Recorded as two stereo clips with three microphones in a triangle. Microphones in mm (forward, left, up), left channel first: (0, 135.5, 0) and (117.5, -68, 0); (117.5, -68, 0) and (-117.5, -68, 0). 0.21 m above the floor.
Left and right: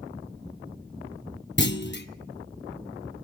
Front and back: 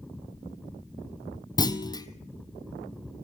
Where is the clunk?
75° left, 1.0 m.